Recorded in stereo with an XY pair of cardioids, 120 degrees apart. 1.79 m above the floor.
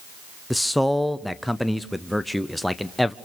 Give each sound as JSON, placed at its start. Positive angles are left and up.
{"t": 0.5, "sound": "a man speaking", "azimuth_deg": 5, "distance_m": 0.7}